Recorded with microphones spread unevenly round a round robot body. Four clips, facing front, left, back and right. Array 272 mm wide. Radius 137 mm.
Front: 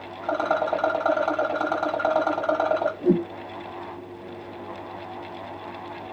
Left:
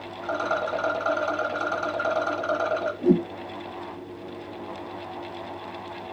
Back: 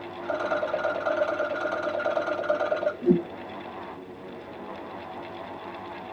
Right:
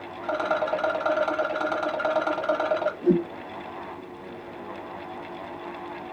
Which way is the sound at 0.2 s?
15° right.